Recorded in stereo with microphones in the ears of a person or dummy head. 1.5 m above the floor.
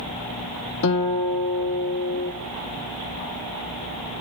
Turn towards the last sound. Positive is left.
turn(degrees=60)  # may be behind; listen again after turning